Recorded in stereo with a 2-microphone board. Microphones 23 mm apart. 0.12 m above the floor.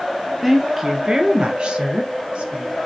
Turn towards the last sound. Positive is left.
turn(degrees=-60)  # may be behind; listen again after turning